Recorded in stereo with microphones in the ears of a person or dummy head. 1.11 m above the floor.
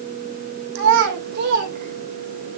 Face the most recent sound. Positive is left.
turn(degrees=-40)  # may be behind; listen again after turning